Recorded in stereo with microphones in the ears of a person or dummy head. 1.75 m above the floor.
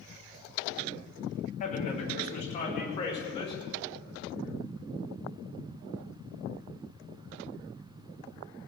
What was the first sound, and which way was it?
A man speaking, 45° left (ahead or behind).